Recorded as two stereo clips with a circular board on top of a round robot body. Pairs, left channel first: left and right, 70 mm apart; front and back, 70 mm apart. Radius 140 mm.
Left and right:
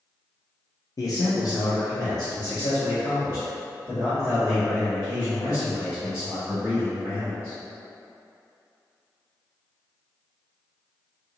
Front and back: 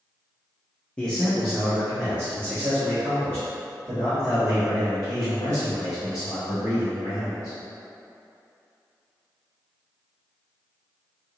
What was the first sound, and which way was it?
A man speaking, 75° left.